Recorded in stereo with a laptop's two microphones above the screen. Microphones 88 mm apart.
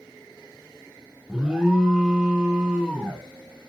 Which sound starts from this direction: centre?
An alarm, at 1.3 s.